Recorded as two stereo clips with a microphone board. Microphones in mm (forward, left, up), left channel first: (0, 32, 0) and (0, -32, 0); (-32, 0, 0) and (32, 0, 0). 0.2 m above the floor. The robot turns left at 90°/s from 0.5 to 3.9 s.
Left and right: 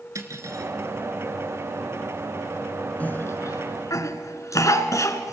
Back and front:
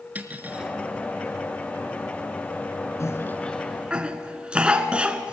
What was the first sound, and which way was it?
Cutlery clinking, 65° right.